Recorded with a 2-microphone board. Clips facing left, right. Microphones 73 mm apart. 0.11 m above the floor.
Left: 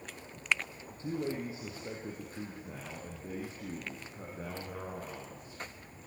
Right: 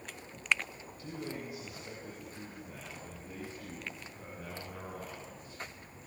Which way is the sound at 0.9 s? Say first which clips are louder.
Left 7 dB; 30° left (ahead or behind).